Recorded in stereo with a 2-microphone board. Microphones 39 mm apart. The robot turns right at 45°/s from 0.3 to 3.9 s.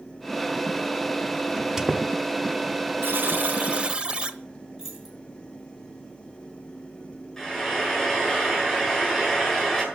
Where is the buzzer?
70° right, 0.8 m; by 4.4 s 30° right, 0.8 m.